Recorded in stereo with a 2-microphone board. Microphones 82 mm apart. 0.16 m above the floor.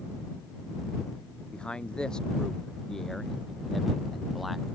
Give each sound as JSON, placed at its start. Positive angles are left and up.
{"t": 1.5, "sound": "a man speaking", "side_deg": 10}